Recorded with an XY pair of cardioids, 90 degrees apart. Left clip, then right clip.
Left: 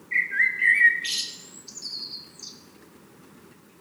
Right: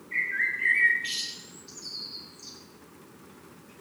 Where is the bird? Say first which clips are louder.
Left 5 dB; 55° left, 1.7 m.